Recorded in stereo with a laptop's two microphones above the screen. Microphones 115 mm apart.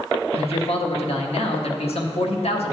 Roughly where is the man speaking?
Left.